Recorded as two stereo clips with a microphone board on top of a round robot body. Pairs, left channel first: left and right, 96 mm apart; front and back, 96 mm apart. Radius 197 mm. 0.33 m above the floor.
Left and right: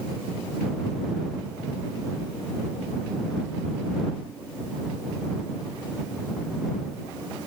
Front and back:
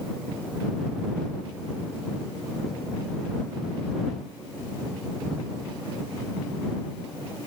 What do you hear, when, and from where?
Only background noise.